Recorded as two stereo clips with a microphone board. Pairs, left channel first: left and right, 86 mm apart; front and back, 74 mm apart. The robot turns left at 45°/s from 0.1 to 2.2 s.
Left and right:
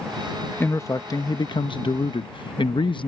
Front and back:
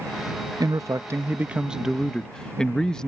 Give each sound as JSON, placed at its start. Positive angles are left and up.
{"t": 0.6, "sound": "a man speaking", "azimuth_deg": 155}